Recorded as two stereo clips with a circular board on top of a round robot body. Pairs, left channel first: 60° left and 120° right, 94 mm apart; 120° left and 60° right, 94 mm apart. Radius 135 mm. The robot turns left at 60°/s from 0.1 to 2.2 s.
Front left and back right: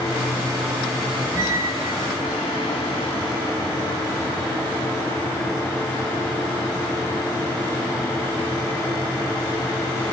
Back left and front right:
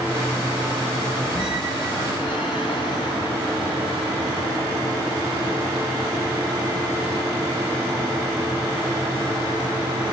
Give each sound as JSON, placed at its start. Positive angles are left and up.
{"t": 1.3, "sound": "a squeak", "azimuth_deg": 135, "distance_m": 1.5}